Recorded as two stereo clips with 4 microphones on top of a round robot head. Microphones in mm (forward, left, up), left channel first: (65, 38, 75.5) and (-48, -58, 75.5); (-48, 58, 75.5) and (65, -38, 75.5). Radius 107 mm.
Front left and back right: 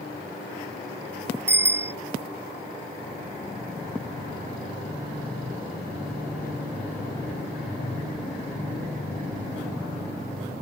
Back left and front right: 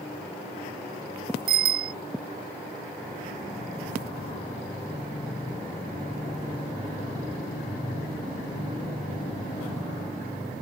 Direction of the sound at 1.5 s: 65° right.